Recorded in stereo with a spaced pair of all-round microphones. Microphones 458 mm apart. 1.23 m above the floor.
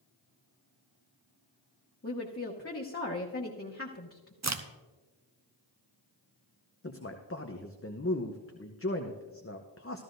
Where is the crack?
35° right (ahead or behind), 0.6 m.